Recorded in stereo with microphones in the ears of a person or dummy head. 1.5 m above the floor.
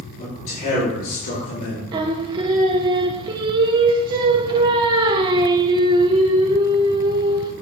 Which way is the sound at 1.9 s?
25° right (ahead or behind).